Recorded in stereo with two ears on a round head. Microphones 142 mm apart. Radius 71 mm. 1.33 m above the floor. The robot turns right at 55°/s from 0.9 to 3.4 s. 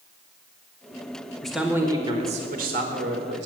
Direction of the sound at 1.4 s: 175° left.